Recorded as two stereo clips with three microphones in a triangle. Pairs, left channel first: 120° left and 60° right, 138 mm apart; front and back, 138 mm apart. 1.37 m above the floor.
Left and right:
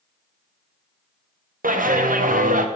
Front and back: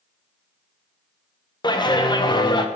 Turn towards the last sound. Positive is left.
turn(degrees=-60)